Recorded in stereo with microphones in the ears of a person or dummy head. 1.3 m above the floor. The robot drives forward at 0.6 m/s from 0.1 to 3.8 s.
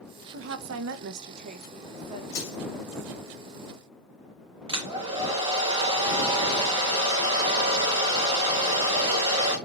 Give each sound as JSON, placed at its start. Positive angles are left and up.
{"t": 0.3, "sound": "a woman speaking", "side_deg": -70, "distance_m": 0.7}
{"t": 2.3, "sound": "crushing", "side_deg": 65, "distance_m": 2.5}
{"t": 4.7, "sound": "a hair dryer", "side_deg": -25, "distance_m": 1.1}